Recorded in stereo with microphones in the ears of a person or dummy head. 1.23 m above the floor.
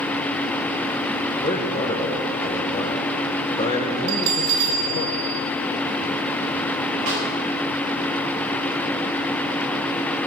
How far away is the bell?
About 1.8 m.